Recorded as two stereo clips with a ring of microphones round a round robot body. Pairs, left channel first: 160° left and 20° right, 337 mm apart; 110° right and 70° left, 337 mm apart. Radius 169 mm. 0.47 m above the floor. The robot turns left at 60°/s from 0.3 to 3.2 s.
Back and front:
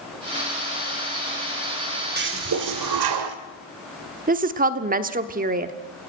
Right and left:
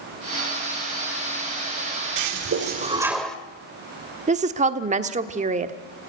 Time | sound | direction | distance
2.2 | a toilet flushing | 40° left | 1.7 m
4.3 | a woman speaking | 20° left | 1.1 m